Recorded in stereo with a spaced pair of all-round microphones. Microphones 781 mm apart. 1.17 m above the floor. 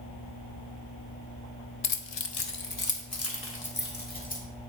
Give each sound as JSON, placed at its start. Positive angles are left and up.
{"t": 1.8, "sound": "keys jangling", "side_deg": 45, "distance_m": 0.5}